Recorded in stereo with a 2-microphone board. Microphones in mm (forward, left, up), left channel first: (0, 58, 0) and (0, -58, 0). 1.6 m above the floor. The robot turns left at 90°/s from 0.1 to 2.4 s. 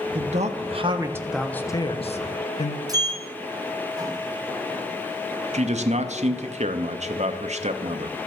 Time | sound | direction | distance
0.1 | a man speaking | 70° right | 0.9 m
2.9 | a sliding door | 35° right (ahead or behind) | 0.9 m
5.5 | a man speaking | 80° right | 0.8 m